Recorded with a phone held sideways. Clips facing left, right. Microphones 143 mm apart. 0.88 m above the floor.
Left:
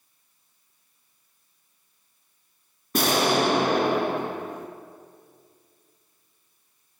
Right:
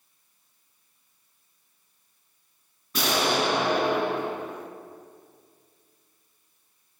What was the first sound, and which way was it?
An explosion, 50° left (ahead or behind).